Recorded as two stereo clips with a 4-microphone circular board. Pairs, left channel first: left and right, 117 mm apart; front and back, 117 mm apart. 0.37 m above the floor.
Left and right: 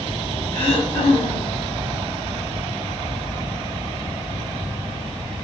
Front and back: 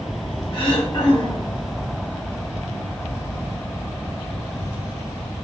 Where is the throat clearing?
40° left, 1.8 m.